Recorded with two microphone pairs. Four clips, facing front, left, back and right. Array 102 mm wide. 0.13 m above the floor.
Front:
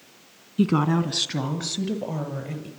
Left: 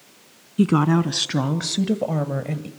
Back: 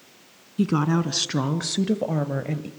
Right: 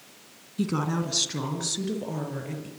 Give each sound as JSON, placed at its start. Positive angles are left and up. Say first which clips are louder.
{"t": 0.6, "sound": "a woman speaking", "louder": "left 9 dB, front 1 dB", "azimuth_deg": 80, "distance_m": 1.4}